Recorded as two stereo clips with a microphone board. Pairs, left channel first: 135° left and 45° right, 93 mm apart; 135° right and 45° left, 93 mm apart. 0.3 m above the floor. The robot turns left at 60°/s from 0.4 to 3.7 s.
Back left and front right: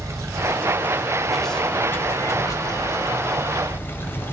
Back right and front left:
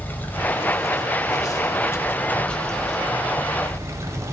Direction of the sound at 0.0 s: 80° right.